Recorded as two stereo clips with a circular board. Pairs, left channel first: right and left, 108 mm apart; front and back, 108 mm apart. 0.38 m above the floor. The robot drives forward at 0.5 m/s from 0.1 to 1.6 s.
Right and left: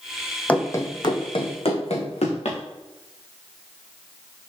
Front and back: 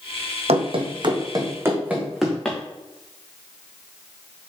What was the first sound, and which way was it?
Running footsteps, 165° right.